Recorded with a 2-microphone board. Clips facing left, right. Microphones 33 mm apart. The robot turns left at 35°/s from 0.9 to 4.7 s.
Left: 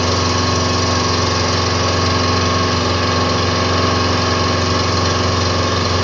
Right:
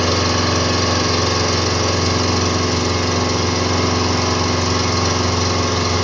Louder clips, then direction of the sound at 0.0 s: Left 1 dB; 5° left (ahead or behind).